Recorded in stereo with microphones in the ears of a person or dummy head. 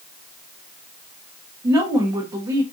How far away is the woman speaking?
About 0.7 m.